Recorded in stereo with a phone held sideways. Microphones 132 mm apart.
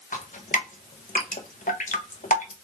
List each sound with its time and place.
0.1 s dripping: 85° left, 0.8 m